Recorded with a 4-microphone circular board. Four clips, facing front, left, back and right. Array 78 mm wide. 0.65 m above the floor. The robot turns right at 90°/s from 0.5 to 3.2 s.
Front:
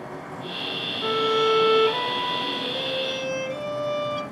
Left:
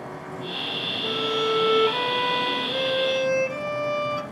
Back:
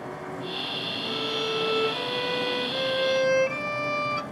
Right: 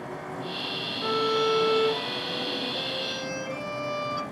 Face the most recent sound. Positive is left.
turn(degrees=170)